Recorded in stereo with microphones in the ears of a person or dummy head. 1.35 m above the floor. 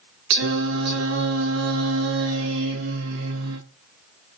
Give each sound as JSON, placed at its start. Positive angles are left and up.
{"t": 0.3, "sound": "singing", "side_deg": -65, "distance_m": 0.9}